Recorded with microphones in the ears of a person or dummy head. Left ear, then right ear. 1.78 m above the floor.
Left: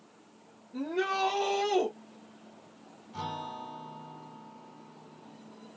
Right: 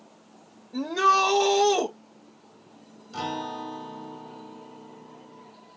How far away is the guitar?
About 2.5 m.